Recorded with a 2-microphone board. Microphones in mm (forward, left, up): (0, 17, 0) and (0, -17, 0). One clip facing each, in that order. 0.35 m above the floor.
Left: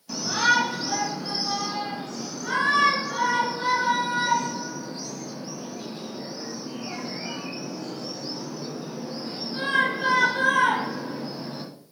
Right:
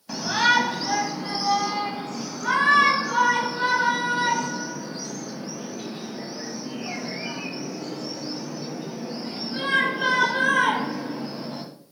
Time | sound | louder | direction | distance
0.1 | a shout | right 1 dB | 35° right (ahead or behind) | 2.5 m